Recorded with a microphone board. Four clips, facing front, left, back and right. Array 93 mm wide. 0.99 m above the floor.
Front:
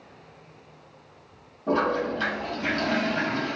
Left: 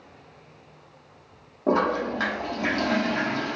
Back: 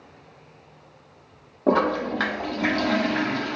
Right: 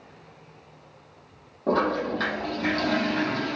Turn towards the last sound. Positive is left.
turn(degrees=170)